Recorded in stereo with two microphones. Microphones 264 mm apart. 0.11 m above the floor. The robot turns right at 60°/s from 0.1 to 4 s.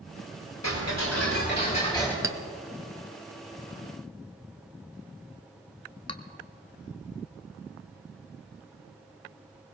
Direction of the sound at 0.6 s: 85° left.